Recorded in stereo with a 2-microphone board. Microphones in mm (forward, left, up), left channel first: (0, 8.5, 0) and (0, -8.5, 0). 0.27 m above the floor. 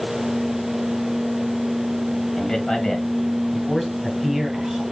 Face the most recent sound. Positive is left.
turn(degrees=-30)  # may be behind; listen again after turning